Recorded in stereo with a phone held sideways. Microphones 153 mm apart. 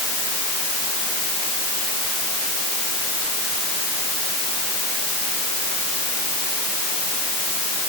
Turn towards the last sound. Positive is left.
No sound to turn to.